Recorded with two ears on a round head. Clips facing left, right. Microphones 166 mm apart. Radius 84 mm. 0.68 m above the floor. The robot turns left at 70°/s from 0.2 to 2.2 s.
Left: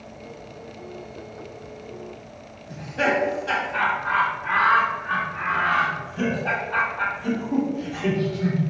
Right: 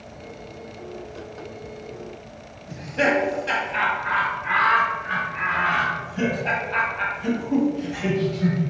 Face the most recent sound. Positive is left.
turn(degrees=-30)  # may be behind; listen again after turning